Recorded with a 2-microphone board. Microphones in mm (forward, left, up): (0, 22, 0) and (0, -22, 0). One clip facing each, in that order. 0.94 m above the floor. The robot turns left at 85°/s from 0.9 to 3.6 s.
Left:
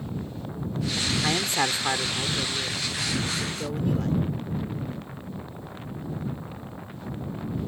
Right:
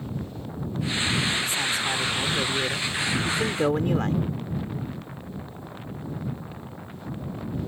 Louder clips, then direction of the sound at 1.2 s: Left 1 dB; 75° left.